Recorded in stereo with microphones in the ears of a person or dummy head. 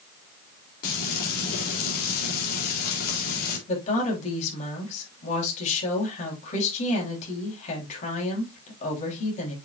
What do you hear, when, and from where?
0.8 s frying: 60° left (ahead or behind), 3.5 m
3.7 s a woman speaking: 50° left (ahead or behind), 4.5 m